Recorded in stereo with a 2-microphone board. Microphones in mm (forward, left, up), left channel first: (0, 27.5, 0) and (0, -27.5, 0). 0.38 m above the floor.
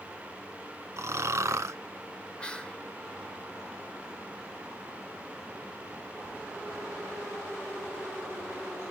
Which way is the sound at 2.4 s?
15° left (ahead or behind).